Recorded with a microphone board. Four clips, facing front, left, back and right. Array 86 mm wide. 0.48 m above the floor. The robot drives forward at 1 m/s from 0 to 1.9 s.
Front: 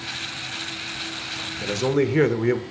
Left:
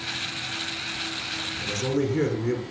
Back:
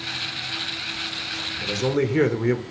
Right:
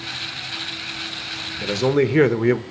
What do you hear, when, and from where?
1.6 s a man speaking: 65° right, 1.3 m; by 2.6 s 85° right, 1.2 m